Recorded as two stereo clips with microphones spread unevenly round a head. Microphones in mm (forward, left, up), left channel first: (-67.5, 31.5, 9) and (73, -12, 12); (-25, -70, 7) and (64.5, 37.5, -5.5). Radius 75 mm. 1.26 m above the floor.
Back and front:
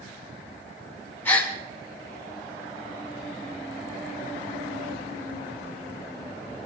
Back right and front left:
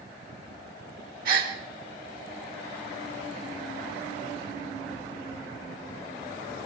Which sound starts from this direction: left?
A gasp, at 1.2 s.